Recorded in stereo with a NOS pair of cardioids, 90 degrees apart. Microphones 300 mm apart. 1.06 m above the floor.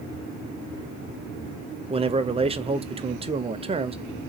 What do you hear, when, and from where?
1.9 s a man speaking: 20° right, 0.6 m